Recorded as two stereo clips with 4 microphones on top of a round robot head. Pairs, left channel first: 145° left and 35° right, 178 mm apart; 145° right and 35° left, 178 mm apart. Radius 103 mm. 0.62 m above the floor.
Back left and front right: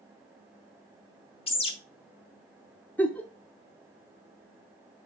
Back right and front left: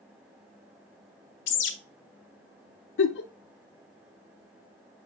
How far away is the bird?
About 0.8 m.